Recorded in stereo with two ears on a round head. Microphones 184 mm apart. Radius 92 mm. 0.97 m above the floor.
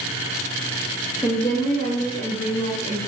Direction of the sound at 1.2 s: 10° left (ahead or behind).